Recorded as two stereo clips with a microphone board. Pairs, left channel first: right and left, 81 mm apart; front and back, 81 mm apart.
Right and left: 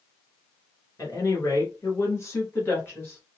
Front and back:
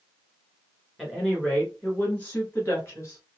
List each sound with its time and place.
1.0 s a woman speaking: 90° right, 1.9 m; by 3.2 s 35° right, 2.0 m